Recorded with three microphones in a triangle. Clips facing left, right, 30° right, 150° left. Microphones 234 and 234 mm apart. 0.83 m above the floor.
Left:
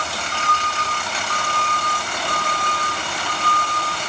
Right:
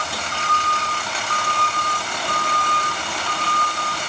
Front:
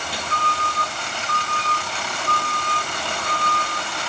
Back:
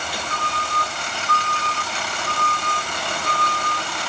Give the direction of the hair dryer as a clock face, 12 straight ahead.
No hair dryer in this recording.